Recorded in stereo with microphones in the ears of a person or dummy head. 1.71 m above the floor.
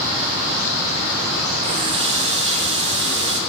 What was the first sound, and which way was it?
A running tap, 30° right (ahead or behind).